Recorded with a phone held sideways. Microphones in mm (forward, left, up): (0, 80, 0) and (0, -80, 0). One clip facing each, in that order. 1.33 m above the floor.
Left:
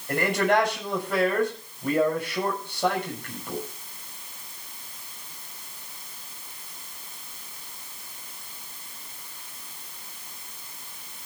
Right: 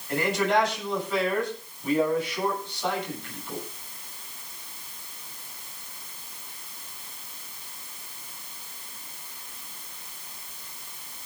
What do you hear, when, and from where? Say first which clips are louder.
0.1 s a man speaking: left 1 dB; 55° left (ahead or behind), 7 m